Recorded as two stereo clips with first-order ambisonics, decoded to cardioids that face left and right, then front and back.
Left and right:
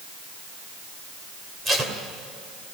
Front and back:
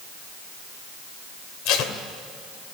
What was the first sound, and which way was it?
Tape being pulled, 20° right.